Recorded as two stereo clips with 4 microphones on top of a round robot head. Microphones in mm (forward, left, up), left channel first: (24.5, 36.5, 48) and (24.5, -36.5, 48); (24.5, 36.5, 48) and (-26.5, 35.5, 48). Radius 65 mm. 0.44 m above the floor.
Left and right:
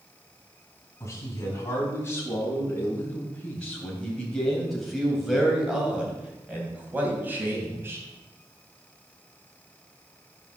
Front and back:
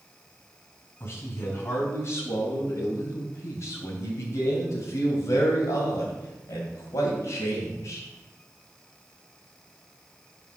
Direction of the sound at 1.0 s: 40° left.